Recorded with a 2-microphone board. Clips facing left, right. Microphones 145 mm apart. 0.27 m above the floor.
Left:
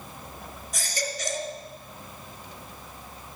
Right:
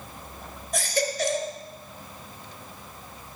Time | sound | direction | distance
0.7 | a baby crying | 60° right (ahead or behind) | 1.6 m